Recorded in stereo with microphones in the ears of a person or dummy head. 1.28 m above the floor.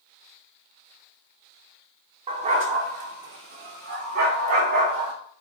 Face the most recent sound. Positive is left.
turn(degrees=-45)  # may be behind; listen again after turning